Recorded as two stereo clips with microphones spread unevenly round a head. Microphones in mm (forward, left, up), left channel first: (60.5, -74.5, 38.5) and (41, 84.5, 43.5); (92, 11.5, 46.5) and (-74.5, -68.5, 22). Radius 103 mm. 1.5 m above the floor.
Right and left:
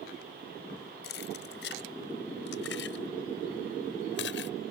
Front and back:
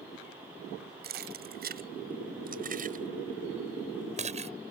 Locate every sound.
1.0 s keys jangling: 120° right; by 4.5 s 100° right